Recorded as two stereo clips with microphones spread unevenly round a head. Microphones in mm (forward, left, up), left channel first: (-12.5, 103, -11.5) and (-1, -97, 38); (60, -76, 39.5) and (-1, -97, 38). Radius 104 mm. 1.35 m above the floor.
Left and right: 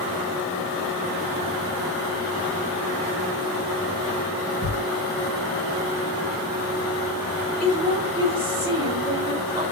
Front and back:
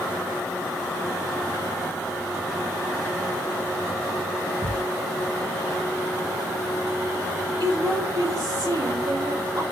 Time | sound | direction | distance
4.6 | a thud | 120° right | 3 m
7.6 | a woman speaking | 140° right | 1.9 m